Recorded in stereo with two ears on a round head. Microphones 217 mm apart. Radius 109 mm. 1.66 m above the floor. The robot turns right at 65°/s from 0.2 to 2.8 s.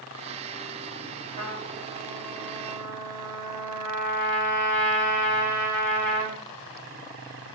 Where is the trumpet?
160° right, 8 m; by 6.4 s 65° right, 8 m.